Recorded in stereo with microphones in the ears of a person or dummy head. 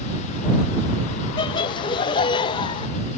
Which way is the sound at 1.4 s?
25° left (ahead or behind).